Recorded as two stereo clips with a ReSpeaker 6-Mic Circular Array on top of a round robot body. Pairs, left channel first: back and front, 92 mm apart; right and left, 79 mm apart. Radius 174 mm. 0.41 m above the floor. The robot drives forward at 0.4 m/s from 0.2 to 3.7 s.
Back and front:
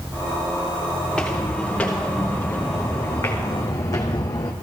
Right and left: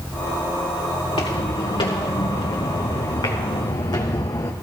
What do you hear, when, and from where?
1.0 s footsteps: 95° right, 3.5 m; by 4.5 s 135° right, 1.7 m